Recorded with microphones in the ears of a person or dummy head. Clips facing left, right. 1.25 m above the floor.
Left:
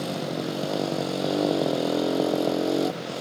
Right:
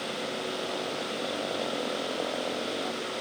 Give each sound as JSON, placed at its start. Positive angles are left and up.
{"t": 0.0, "sound": "a motorcycle", "side_deg": 60}